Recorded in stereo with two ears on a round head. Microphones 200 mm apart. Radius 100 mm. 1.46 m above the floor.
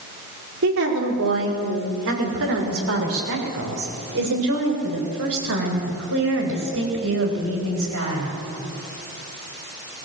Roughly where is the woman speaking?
Right.